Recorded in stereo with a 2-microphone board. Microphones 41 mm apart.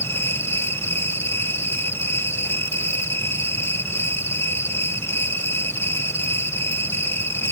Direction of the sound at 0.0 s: 85° left.